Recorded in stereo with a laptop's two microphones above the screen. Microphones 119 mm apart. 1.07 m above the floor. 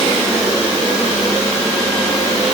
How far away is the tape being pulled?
No tape being pulled in this recording.